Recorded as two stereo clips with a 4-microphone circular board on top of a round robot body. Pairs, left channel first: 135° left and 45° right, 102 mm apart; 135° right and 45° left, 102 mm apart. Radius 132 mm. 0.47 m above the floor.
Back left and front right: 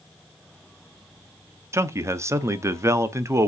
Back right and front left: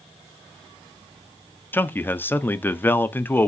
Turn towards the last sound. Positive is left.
turn(degrees=-80)